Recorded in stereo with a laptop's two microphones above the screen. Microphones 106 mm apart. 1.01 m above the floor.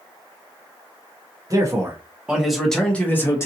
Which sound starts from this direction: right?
A man speaking, at 1.5 s.